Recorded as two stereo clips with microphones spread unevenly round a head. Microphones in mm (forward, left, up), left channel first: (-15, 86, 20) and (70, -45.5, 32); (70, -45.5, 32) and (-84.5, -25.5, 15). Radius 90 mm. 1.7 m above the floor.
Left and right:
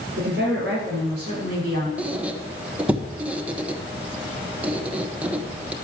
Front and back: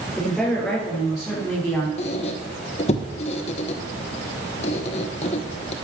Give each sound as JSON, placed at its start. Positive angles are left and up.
{"t": 0.2, "sound": "a woman speaking", "azimuth_deg": -95, "distance_m": 7.0}
{"t": 2.0, "sound": "a squeak", "azimuth_deg": 15, "distance_m": 0.8}